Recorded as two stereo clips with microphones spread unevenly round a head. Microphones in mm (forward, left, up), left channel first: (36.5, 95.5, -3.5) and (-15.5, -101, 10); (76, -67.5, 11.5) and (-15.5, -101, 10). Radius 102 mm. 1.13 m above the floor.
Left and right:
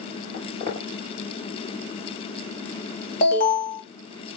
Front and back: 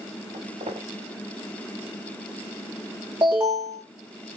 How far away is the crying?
I don't hear crying.